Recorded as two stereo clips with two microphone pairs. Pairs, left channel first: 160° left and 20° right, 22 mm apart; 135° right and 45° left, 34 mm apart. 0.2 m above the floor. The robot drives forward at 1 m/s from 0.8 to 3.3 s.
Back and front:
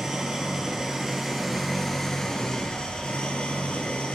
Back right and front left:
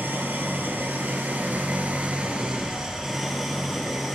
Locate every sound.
0.0 s an engine running: 55° left, 2 m; by 4.2 s 130° left, 2 m